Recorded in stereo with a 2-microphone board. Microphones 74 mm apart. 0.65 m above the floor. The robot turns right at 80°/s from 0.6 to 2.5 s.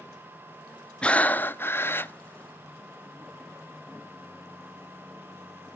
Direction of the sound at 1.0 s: 10° left (ahead or behind).